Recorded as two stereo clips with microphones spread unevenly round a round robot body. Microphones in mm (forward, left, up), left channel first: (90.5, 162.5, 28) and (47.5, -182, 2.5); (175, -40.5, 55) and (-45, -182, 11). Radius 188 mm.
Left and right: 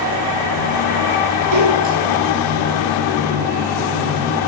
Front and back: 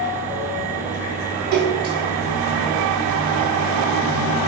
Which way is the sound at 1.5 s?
150° right.